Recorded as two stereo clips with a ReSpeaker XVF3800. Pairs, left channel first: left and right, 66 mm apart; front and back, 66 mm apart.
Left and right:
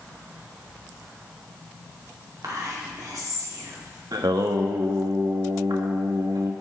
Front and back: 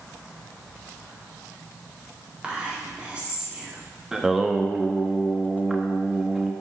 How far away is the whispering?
About 2 m.